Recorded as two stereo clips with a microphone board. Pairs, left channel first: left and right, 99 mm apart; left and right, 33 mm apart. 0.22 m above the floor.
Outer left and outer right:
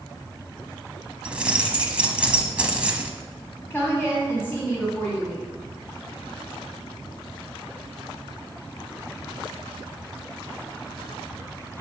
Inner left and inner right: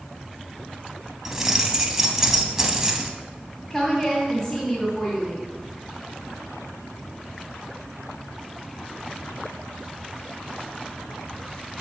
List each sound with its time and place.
1.2 s keys jangling: 15° right (ahead or behind), 0.8 m
3.7 s a woman speaking: 20° left (ahead or behind), 1.5 m